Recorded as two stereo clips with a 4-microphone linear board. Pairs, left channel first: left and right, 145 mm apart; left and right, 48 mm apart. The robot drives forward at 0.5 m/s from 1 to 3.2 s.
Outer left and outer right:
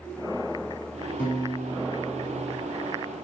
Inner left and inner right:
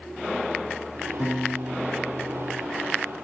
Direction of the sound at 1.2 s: 10° left (ahead or behind).